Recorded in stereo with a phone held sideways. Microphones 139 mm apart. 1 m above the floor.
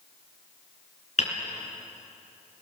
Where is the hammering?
55° left (ahead or behind), 3.5 m.